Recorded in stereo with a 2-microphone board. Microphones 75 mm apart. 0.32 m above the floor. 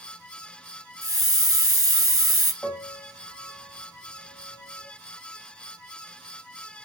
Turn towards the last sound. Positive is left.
turn(degrees=20)  # may be behind; listen again after turning